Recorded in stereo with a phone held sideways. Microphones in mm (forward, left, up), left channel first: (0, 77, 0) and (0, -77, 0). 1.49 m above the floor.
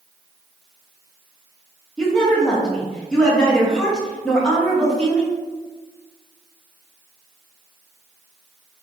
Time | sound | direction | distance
2.0 | a woman speaking | 5° left (ahead or behind) | 0.8 m